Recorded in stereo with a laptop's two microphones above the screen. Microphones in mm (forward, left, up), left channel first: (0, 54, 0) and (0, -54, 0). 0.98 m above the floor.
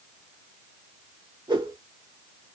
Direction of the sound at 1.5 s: 45° right (ahead or behind).